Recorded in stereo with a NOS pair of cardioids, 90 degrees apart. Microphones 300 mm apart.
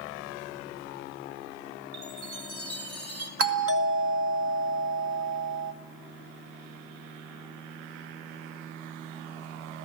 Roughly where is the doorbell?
Ahead right.